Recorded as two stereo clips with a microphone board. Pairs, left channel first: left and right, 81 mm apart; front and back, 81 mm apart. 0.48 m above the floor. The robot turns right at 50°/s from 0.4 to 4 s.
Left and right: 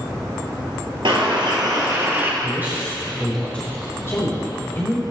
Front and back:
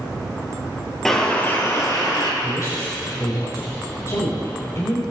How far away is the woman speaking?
About 2.5 m.